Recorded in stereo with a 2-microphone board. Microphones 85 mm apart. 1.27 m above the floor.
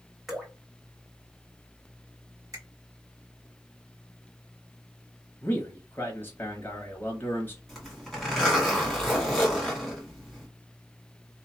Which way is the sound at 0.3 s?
Centre (ahead or behind).